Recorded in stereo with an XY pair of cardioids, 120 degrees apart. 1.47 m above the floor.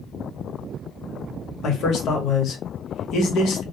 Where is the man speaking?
65° left, 1.0 m.